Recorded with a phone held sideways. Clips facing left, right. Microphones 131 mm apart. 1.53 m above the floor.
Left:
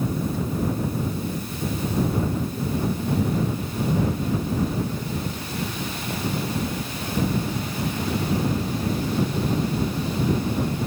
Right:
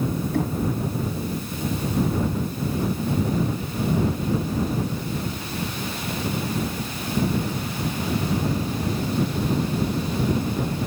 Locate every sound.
0.3 s knocking: 70° right (ahead or behind)